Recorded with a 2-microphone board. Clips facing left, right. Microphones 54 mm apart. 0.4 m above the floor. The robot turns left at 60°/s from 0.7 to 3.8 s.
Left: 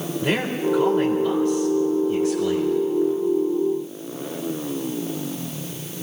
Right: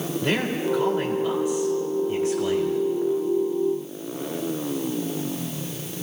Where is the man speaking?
15° left, 1.6 m; by 2.8 s 110° right, 1.6 m.